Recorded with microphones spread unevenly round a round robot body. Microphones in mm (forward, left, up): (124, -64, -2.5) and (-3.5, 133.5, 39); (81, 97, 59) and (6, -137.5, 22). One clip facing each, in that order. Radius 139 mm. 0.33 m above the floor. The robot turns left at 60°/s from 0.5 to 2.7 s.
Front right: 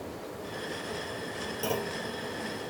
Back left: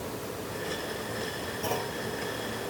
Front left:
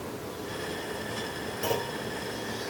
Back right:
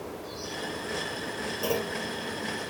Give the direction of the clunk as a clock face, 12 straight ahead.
1 o'clock.